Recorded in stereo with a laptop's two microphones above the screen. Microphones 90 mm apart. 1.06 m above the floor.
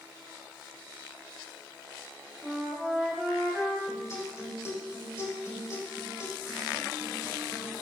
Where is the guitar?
35° left (ahead or behind), 4.5 m.